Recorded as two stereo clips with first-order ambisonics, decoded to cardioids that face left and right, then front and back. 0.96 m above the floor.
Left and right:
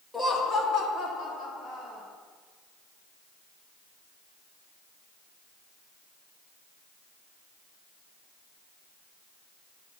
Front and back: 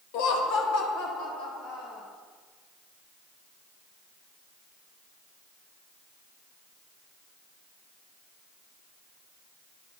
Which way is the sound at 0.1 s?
5° left.